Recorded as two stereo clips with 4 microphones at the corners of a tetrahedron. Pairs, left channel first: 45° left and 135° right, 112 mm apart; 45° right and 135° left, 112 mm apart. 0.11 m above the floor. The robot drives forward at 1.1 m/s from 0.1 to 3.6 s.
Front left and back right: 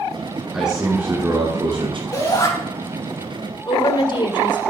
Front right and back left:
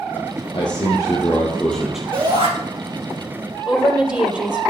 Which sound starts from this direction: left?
A shout, at 2.1 s.